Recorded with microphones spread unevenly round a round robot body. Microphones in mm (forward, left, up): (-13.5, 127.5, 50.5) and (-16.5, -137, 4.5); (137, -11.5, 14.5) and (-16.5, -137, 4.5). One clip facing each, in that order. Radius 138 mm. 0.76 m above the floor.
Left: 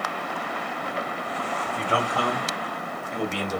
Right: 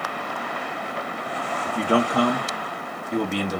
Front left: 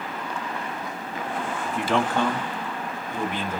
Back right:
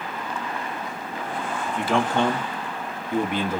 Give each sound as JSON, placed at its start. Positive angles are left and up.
{"t": 1.6, "sound": "a man speaking", "azimuth_deg": -45, "distance_m": 0.6}